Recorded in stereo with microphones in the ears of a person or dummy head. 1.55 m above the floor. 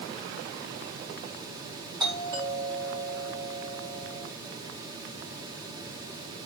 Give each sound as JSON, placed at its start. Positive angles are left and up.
{"t": 2.0, "sound": "a doorbell", "side_deg": -20, "distance_m": 5.0}